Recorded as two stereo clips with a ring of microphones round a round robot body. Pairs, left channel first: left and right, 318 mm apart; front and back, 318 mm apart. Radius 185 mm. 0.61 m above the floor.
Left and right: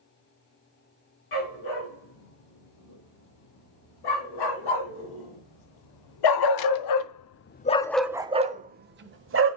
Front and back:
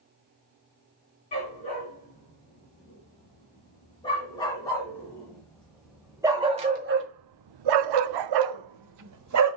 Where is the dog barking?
70° left, 4 m; by 9.6 s 140° right, 1.3 m.